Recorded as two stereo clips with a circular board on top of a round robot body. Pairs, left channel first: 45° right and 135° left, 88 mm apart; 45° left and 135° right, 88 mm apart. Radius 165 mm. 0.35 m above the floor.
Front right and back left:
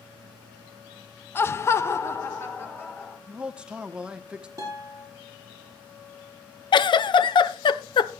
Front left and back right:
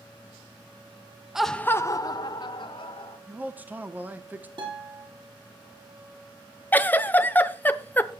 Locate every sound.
1.4 s laughter: 60° right, 0.8 m; by 3.2 s 20° left, 2.5 m
3.3 s a man speaking: 165° right, 1.3 m
4.6 s a guitar: 170° right, 6 m
6.7 s a giggle: 25° right, 0.9 m